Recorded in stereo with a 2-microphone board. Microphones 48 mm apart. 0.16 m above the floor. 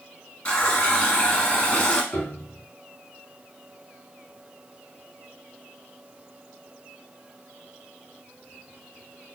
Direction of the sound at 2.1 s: 30° left (ahead or behind).